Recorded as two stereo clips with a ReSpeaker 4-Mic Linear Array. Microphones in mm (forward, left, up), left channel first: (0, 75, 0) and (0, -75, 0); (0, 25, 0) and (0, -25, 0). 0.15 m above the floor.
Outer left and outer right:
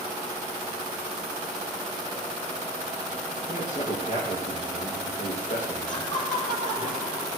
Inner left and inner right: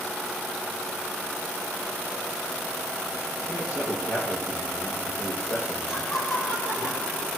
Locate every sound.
3.5 s a man speaking: 55° left (ahead or behind), 7.5 m
5.9 s laughter: 60° left (ahead or behind), 3.5 m